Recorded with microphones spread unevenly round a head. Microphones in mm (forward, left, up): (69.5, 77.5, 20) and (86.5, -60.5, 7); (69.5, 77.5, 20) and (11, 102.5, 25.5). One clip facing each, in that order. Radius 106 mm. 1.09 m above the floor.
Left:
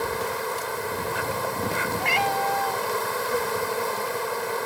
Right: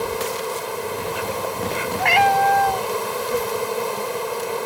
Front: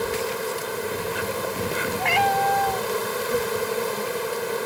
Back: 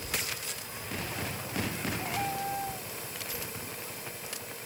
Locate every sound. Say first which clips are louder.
0.0 s an insect: right 3 dB, front 12 dB; 15° right
2.0 s a cat meowing: right 10 dB, front 15 dB; 60° right